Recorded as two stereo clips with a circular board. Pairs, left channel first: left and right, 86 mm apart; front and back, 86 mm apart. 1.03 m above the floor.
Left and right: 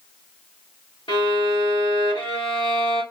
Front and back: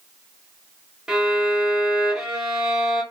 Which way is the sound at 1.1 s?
100° left.